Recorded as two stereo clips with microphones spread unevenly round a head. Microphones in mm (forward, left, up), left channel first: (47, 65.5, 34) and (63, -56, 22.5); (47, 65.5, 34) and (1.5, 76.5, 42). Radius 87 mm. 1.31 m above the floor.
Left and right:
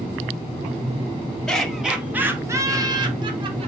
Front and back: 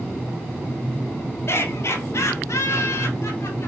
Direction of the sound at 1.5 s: 10° left.